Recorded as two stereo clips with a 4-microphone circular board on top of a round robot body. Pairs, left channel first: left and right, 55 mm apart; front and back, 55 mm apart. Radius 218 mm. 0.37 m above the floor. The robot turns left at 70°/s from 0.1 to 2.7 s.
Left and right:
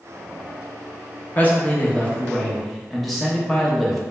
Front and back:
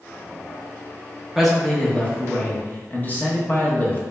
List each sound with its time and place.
1.4 s a man speaking: 95° left, 1.1 m; by 4.0 s straight ahead, 1.1 m